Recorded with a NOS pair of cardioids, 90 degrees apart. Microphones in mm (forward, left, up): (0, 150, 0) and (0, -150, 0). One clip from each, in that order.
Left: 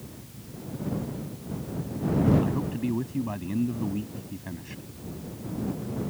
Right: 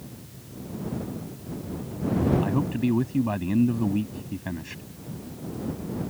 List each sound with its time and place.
2.4 s a man speaking: 40° right